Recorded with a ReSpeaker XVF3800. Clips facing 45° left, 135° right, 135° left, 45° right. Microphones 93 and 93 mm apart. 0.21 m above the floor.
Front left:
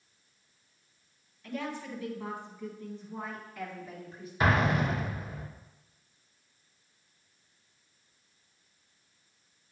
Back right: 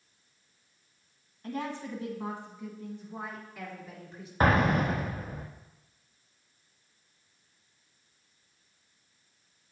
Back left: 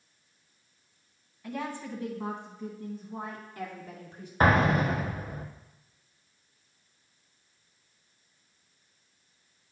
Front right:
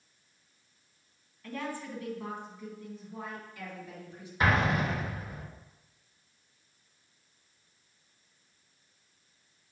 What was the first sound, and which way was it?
A woman speaking, 160° right.